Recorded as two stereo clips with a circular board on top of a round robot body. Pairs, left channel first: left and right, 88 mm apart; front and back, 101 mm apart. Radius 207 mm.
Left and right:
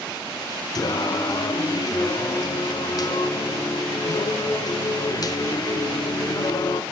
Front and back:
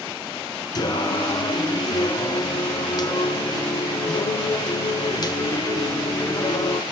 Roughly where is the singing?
Ahead left.